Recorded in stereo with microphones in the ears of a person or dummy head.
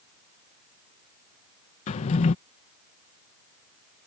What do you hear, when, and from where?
1.9 s a drawer: 30° left (ahead or behind)